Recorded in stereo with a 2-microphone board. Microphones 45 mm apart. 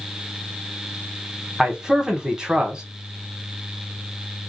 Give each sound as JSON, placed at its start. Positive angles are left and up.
{"t": 1.6, "sound": "a man speaking", "side_deg": -15, "distance_m": 1.1}